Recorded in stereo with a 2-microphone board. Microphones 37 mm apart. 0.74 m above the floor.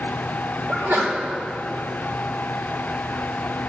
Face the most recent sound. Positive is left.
turn(degrees=-65)  # may be behind; listen again after turning